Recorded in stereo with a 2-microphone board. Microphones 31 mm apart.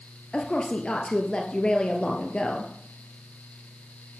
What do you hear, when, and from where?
0.3 s a woman speaking: 30° left (ahead or behind), 2 m